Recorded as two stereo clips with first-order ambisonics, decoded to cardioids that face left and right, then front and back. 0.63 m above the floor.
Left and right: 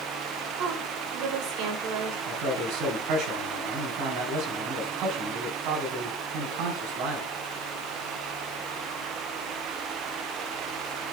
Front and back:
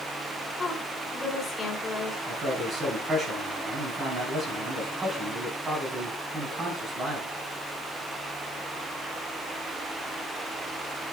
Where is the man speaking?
115° right, 4.5 m.